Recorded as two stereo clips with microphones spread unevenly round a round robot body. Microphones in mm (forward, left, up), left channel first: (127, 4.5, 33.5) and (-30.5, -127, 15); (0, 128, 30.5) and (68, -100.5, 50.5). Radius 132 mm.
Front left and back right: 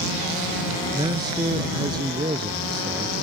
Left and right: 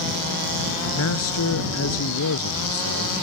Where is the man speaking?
145° left.